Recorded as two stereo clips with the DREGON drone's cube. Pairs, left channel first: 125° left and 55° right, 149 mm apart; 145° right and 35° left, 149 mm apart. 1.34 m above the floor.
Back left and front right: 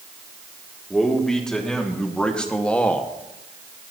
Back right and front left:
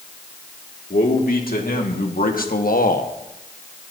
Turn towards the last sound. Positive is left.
turn(degrees=-155)